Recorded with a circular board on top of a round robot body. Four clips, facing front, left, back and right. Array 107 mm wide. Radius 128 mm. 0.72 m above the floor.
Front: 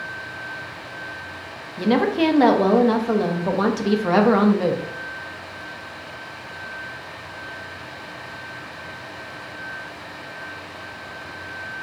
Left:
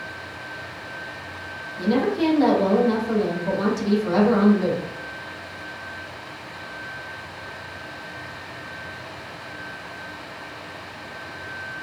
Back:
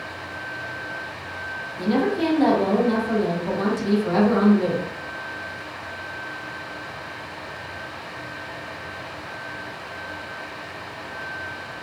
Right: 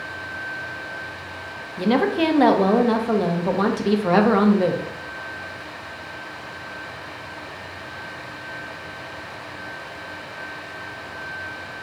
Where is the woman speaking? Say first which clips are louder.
Right 2 dB, front 3 dB; 50° right, 0.7 m.